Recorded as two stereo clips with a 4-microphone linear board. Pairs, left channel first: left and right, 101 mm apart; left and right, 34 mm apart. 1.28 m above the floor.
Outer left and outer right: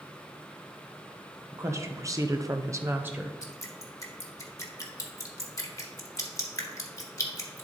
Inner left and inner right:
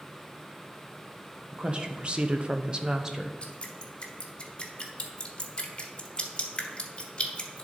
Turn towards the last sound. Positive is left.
turn(degrees=35)  # may be behind; listen again after turning